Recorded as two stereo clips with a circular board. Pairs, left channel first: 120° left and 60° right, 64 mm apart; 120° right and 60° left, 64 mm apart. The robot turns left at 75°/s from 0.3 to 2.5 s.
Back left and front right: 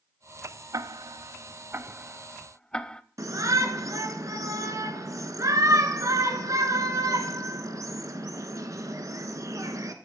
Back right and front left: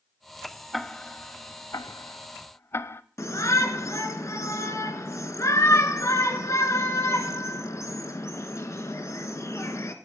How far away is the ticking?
About 0.5 m.